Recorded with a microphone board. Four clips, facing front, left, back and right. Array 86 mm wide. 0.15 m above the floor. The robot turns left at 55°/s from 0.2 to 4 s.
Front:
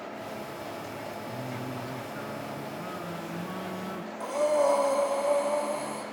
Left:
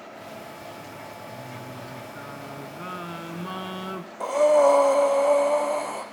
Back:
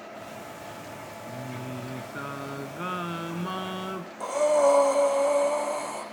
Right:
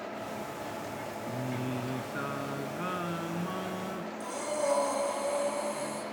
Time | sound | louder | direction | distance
1.2 | singing | right 4 dB, front 1 dB | 85° right | 1.0 m
4.2 | breathing | left 16 dB, back 3 dB | 100° left | 3 m